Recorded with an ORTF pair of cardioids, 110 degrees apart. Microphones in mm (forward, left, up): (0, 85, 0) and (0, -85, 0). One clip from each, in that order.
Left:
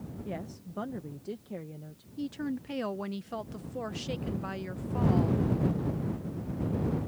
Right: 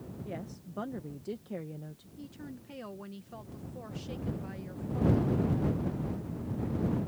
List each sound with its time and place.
0.2 s a woman speaking: 10° left; by 2.1 s 15° right
2.2 s a woman speaking: 45° left